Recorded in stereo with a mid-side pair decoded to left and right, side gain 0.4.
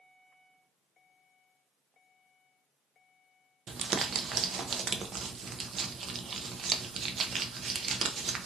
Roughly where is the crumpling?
Ahead right.